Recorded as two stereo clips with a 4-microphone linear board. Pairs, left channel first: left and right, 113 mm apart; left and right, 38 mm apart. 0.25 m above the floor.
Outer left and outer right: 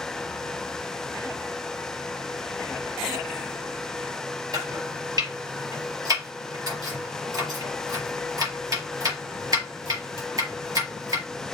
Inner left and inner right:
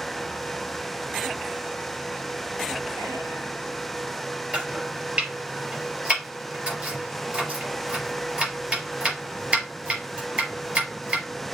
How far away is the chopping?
About 5 m.